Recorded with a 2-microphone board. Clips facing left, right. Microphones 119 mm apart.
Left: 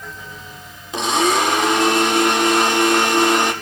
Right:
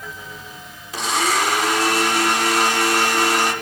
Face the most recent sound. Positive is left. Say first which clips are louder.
# left 4 dB
turn(degrees=20)  # may be behind; listen again after turning